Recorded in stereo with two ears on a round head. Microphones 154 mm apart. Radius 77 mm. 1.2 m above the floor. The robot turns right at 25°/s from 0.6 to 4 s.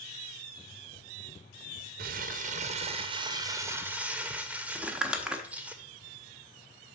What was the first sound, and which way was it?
Crumpling, 60° right.